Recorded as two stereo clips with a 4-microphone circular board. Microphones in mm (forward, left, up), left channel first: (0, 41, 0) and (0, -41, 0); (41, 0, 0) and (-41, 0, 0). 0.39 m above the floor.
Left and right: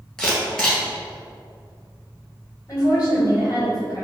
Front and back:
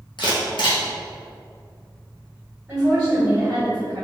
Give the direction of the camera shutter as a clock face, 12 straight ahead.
12 o'clock.